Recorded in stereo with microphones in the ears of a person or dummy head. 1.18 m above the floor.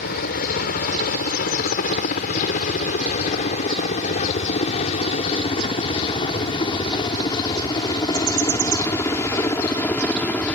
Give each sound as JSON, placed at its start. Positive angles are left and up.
{"t": 0.0, "sound": "a helicopter", "side_deg": 50}